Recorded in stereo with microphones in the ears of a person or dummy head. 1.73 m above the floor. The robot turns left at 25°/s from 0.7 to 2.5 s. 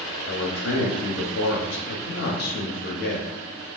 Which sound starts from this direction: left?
A man speaking, at 0.2 s.